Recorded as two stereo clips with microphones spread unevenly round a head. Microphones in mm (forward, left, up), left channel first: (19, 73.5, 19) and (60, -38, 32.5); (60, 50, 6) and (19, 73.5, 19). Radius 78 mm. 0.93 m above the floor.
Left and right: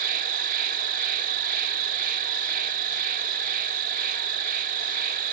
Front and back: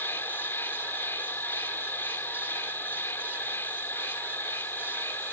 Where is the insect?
100° right.